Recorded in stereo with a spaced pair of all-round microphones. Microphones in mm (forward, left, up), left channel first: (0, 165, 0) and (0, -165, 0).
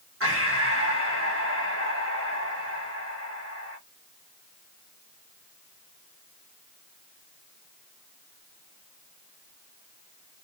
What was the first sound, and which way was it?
Breathing, 45° right (ahead or behind).